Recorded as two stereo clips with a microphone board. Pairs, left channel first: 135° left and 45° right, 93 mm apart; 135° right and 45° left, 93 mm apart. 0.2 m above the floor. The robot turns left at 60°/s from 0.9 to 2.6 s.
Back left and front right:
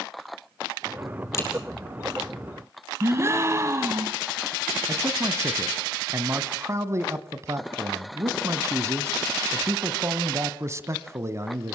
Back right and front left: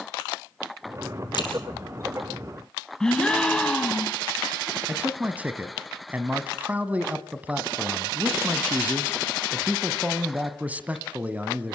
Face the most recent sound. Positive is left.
turn(degrees=-15)